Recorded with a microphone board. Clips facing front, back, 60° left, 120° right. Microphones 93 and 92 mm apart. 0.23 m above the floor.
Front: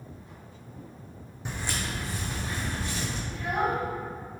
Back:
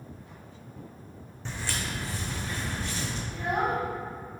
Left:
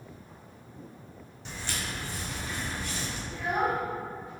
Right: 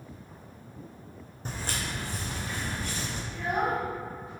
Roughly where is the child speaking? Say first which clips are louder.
Even, even; behind left.